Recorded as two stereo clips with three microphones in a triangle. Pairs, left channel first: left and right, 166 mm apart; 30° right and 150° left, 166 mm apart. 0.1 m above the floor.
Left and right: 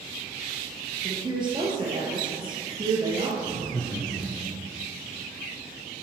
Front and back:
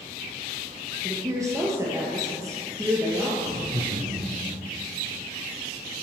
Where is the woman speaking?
140° right, 1.7 m.